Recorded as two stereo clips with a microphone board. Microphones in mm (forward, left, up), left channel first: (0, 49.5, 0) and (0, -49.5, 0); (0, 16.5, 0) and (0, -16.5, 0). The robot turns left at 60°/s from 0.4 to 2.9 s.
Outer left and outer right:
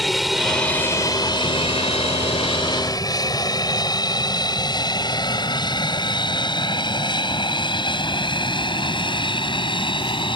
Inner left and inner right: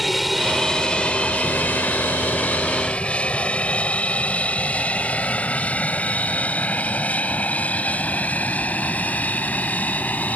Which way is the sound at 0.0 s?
Centre (ahead or behind).